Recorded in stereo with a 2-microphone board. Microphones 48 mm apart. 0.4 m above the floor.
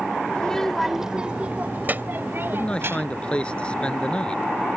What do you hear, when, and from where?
0.3 s a child speaking: 20° left (ahead or behind); by 3.3 s 60° right (ahead or behind)
2.5 s a man speaking: 20° left (ahead or behind)